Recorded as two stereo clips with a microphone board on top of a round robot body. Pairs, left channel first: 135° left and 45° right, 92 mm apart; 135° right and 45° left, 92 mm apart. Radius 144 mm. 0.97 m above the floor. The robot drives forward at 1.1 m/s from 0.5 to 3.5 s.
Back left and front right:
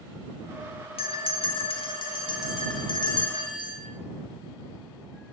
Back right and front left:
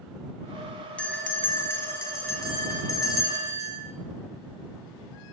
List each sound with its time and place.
1.0 s a bell: 150° left, 1.4 m; by 3.8 s 170° left, 4 m